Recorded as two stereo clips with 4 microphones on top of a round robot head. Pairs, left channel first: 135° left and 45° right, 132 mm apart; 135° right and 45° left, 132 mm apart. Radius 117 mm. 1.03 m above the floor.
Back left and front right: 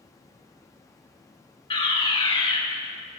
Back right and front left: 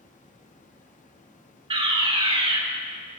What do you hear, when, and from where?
0.0 s running water: 160° right, 1.3 m
1.7 s a fire alarm: 90° left, 2.5 m